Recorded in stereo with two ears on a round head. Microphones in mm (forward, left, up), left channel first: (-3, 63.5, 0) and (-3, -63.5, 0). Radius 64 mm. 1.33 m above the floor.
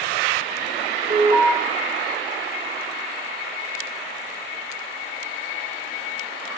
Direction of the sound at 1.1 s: 40° right (ahead or behind).